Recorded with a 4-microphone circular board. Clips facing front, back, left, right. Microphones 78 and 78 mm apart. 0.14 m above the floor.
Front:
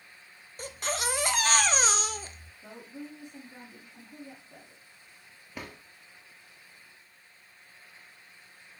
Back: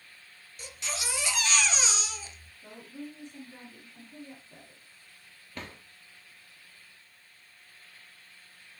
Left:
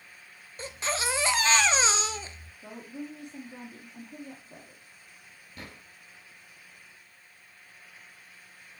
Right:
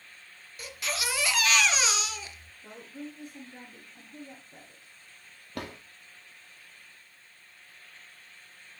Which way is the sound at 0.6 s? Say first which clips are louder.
Front 6 dB, left 3 dB; 35° left.